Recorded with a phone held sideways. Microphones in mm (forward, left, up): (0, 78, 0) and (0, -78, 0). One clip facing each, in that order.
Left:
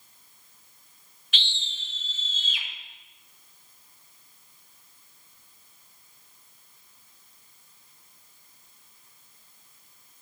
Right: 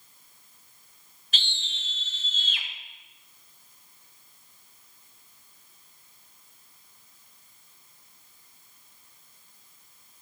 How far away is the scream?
About 0.8 m.